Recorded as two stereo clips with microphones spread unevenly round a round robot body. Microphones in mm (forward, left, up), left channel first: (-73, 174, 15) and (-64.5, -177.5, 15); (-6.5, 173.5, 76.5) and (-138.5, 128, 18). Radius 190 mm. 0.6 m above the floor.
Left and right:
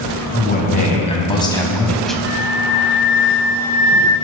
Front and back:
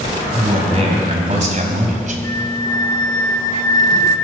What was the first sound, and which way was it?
A man speaking, 155° left.